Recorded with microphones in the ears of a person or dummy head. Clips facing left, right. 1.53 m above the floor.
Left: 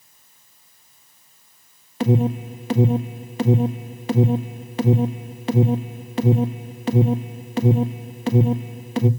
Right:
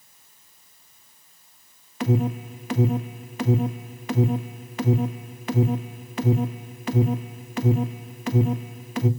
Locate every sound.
2.0 s an alarm: 30° left (ahead or behind), 0.8 m